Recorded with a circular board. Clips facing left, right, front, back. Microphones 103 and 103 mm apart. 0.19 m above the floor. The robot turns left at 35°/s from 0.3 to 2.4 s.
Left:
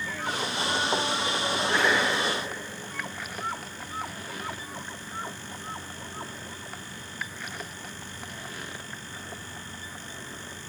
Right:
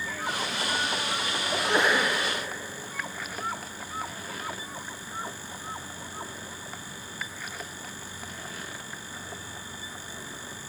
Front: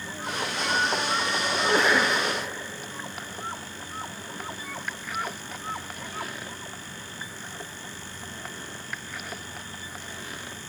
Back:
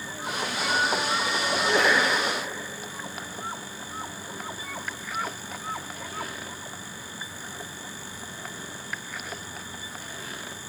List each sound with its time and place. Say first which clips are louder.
1.5 s a sneeze: right 1 dB, even; 20° right, 2 m; by 2.1 s 40° right, 2 m